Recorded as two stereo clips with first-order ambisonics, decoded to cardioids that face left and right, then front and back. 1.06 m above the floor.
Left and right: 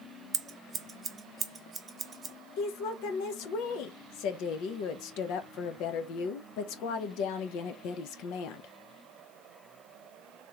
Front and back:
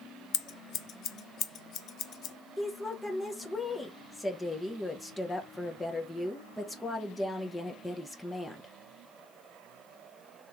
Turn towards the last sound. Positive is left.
turn(degrees=80)